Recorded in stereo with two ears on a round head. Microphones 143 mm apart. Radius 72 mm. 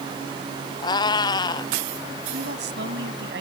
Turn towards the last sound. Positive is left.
turn(degrees=-75)  # may be behind; listen again after turning